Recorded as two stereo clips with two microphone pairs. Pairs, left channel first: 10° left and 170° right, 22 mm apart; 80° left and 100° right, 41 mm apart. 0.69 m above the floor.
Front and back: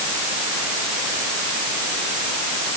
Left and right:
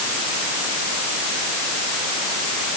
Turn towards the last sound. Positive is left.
No sound to turn to.